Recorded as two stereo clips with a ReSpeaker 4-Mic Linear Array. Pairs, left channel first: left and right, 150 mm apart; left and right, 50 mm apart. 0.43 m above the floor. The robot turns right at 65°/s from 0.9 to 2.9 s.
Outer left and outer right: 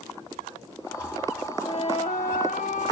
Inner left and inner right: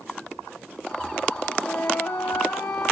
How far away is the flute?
About 1.8 m.